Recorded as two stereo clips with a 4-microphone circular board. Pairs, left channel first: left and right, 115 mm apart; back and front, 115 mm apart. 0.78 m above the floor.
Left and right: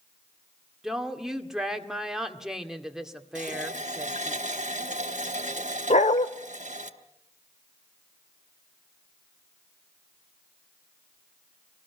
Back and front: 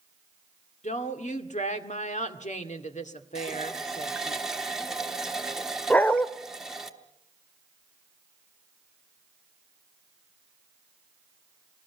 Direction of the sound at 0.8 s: 175° right.